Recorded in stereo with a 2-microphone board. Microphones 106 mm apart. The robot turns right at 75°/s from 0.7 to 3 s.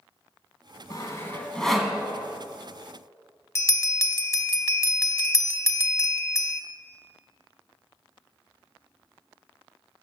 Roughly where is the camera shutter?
I don't hear a camera shutter.